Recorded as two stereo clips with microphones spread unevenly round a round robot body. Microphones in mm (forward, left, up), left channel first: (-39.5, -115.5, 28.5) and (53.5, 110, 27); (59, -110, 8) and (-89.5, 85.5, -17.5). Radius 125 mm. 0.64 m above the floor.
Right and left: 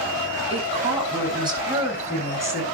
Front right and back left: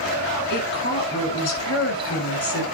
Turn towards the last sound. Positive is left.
turn(degrees=-15)